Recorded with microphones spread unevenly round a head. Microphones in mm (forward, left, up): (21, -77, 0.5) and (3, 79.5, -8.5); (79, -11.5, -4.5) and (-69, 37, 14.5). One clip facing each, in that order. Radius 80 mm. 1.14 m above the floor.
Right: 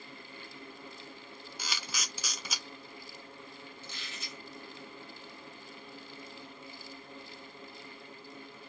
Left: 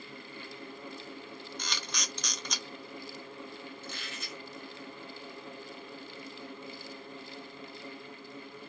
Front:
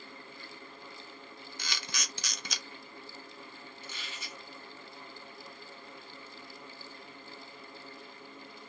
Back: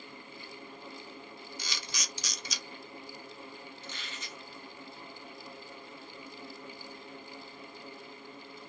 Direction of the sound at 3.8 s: 65° left.